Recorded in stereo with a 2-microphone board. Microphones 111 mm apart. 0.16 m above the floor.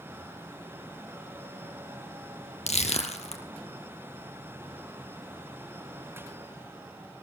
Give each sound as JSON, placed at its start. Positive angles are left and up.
{"t": 2.7, "sound": "crushing", "side_deg": 75, "distance_m": 2.5}